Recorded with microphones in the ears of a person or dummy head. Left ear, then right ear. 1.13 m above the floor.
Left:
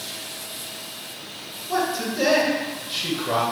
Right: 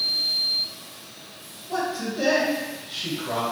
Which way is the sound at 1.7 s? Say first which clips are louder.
Left 3 dB; 20° left (ahead or behind).